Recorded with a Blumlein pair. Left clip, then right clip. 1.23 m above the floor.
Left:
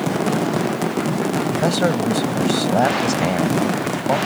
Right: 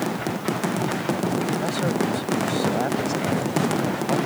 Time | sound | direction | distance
1.6 | a man speaking | 25° left | ?